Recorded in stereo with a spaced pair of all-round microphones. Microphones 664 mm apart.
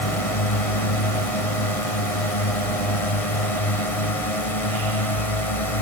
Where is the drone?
60° left (ahead or behind).